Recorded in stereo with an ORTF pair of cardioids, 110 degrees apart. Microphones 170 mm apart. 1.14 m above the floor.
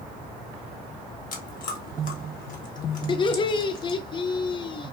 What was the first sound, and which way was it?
Chewing, 50° left.